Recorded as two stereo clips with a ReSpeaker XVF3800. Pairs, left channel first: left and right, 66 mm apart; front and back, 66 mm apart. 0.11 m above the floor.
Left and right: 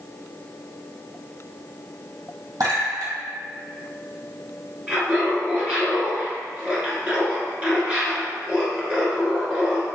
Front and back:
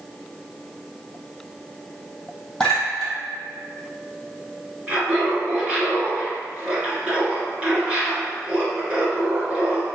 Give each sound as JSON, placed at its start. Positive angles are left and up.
{"t": 2.6, "sound": "a clink", "azimuth_deg": -85, "distance_m": 1.9}
{"t": 4.9, "sound": "laughter", "azimuth_deg": -130, "distance_m": 1.5}